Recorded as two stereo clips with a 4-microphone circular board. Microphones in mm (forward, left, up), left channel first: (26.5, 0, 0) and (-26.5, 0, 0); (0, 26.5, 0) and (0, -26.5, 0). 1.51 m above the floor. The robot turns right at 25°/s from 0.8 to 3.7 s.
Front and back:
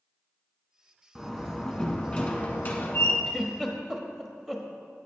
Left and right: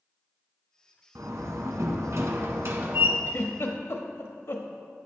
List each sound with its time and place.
1.1 s a door slam: 100° right, 1.3 m; by 3.2 s 50° right, 1.3 m
3.3 s a giggle: 90° left, 1.2 m; by 4.7 s 100° left, 1.2 m